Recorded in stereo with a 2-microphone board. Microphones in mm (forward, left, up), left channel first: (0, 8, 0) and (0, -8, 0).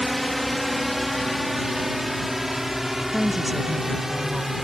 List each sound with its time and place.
0.0 s a drone: 10° left (ahead or behind); by 4.7 s 20° right (ahead or behind)
3.1 s a woman speaking: centre (ahead or behind)